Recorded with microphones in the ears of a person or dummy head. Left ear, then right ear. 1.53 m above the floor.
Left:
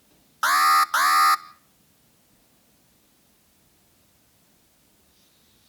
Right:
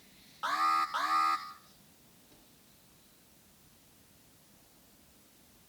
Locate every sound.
0.4 s an alarm: 60° left (ahead or behind), 1.0 m